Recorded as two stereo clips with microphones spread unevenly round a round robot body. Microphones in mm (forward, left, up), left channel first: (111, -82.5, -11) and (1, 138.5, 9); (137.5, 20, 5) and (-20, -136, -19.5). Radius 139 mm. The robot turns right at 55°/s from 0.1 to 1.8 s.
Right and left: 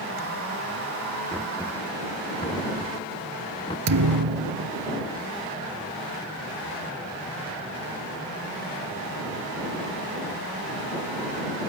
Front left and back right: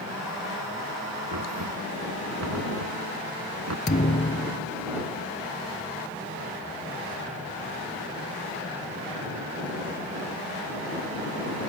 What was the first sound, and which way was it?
Knocking, 165° right.